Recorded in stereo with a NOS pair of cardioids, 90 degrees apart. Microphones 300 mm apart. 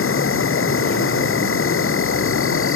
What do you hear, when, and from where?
0.0 s an insect: 45° left